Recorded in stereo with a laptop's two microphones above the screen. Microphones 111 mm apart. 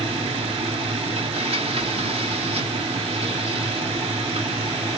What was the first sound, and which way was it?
A machine running, 70° right (ahead or behind).